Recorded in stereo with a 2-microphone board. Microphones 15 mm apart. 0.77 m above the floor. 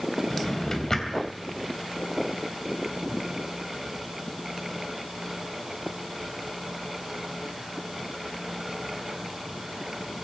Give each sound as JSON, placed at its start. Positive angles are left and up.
{"t": 0.3, "sound": "a drawer", "side_deg": 30, "distance_m": 3.0}